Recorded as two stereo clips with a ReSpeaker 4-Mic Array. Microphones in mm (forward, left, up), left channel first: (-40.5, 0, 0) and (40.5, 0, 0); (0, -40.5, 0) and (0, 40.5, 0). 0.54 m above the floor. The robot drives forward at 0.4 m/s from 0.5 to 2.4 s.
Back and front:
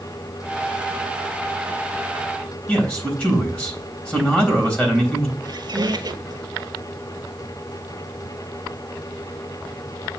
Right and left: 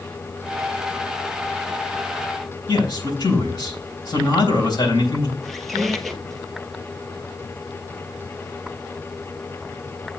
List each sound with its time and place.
2.7 s a man speaking: 105° right, 3.5 m
5.4 s a squeak: straight ahead, 1.0 m